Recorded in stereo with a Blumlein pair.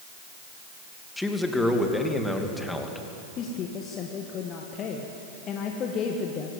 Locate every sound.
1.2 s a man speaking: 5° left, 2.5 m
3.4 s a woman speaking: 30° left, 2.0 m